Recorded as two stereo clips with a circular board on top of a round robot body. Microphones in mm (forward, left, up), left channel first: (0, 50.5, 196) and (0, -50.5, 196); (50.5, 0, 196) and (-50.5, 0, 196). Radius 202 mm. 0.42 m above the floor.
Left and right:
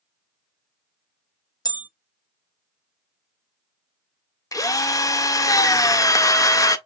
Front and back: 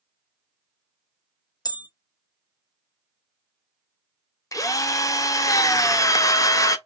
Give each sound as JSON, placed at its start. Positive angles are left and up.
{"t": 1.6, "sound": "a bell", "azimuth_deg": 45, "distance_m": 0.7}
{"t": 4.5, "sound": "a drill", "azimuth_deg": 45, "distance_m": 0.8}